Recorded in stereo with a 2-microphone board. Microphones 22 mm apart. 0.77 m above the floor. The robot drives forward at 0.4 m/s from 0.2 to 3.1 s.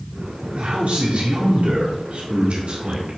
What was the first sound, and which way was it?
A man speaking, 70° right (ahead or behind).